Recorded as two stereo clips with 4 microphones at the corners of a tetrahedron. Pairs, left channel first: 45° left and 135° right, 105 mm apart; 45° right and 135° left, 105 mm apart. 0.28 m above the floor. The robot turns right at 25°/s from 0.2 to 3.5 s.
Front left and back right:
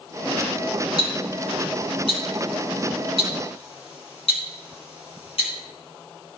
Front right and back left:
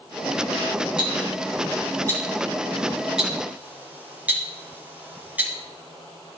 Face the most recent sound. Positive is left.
turn(degrees=60)